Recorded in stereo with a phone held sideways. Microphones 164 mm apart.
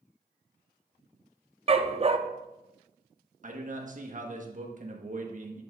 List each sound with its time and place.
1.7 s a dog barking: 35° right (ahead or behind), 0.6 m
3.4 s a man speaking: 50° right (ahead or behind), 1.4 m